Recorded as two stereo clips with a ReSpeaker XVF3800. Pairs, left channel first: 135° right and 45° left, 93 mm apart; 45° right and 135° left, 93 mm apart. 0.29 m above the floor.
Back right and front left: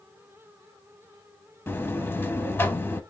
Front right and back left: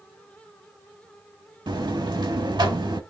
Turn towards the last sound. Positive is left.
turn(degrees=160)